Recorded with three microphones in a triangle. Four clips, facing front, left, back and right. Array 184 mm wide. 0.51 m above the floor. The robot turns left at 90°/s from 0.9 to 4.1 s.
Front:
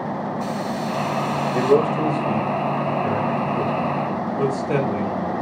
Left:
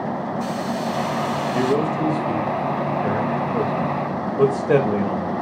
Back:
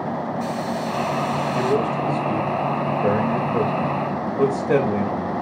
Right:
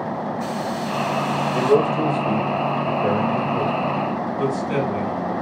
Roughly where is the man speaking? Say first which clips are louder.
Right 4 dB, front 6 dB; ahead.